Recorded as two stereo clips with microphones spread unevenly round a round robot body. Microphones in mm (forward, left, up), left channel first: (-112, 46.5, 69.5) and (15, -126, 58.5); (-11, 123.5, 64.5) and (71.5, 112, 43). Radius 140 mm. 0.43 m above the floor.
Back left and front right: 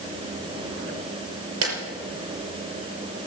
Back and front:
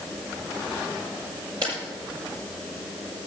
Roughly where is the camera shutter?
Right.